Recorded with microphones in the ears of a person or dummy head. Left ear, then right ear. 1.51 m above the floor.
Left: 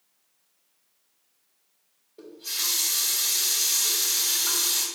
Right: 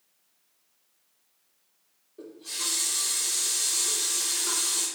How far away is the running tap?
About 2 m.